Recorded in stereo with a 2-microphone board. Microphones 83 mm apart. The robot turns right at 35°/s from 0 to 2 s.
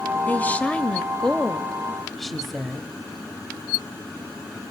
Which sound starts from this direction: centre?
A woman speaking, at 0.3 s.